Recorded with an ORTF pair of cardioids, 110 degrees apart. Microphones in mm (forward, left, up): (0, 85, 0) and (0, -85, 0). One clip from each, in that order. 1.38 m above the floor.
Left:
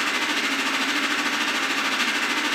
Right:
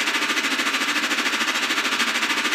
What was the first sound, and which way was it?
A machine running, 40° right.